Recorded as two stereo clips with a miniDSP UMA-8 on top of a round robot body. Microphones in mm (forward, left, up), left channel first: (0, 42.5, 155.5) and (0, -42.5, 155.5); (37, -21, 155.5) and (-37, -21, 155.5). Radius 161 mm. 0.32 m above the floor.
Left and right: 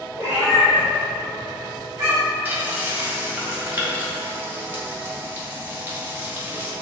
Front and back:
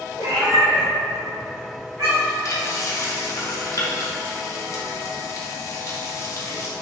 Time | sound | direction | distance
0.2 | a cat meowing | 150° right | 1.5 m
2.5 | frying | 25° right | 1.1 m